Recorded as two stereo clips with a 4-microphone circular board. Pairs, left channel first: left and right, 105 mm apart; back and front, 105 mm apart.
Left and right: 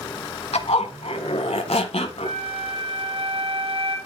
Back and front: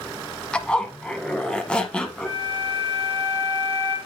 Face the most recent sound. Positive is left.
turn(degrees=-105)